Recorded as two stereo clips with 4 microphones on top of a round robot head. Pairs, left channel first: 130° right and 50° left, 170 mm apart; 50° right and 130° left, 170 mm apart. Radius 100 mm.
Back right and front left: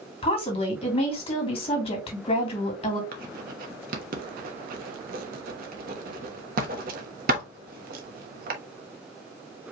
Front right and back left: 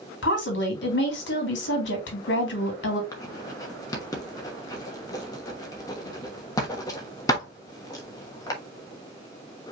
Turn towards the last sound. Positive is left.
turn(degrees=15)